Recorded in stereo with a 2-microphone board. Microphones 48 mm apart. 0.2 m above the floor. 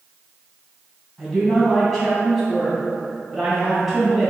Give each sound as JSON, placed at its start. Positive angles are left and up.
{"t": 1.2, "sound": "a woman speaking", "side_deg": 0, "distance_m": 1.7}